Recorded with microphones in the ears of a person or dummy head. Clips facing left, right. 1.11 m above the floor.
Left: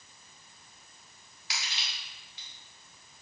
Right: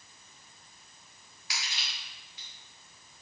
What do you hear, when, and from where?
1.5 s crushing: 25° left (ahead or behind), 1.4 m